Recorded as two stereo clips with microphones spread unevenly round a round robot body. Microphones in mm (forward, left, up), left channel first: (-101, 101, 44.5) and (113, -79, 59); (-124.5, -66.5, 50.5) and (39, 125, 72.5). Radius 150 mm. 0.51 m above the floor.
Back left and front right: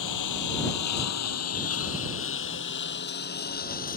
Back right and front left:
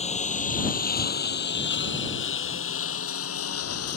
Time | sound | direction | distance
0.0 | a lawn mower | 165° left | ?